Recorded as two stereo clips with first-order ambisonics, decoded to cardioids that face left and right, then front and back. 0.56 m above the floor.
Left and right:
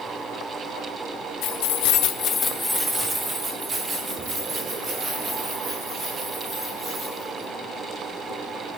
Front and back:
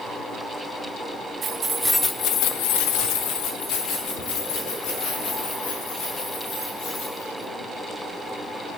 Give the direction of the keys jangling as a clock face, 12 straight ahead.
8 o'clock.